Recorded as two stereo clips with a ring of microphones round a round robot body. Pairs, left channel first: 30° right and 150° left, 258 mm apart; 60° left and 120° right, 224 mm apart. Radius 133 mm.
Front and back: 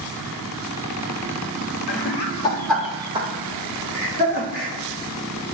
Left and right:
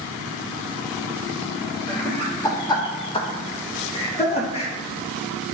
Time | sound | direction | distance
1.9 | laughter | 30° right | 0.9 m